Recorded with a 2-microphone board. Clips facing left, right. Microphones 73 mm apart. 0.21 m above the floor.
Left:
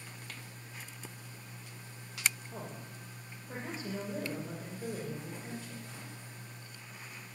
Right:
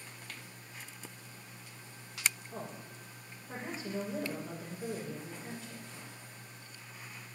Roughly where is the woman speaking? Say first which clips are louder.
Right 1 dB; centre.